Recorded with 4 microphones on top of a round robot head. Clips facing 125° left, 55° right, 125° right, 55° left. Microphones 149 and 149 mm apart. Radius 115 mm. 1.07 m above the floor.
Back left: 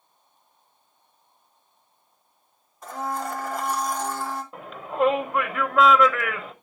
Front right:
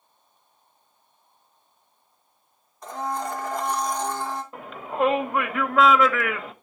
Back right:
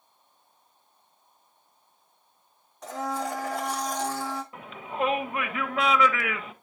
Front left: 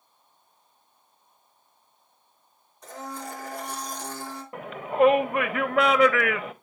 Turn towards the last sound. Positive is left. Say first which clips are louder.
# back left 2 dB, front left 8 dB
turn(degrees=40)